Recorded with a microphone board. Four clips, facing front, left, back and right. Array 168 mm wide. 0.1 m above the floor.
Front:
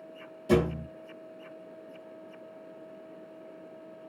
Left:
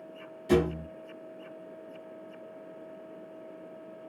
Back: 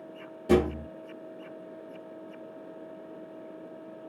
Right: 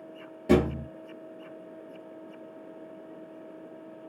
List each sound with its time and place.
0.5 s a thud: 115° right, 1.0 m